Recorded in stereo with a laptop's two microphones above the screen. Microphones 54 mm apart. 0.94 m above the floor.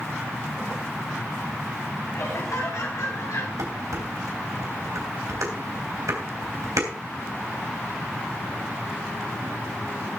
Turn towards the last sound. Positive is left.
turn(degrees=-85)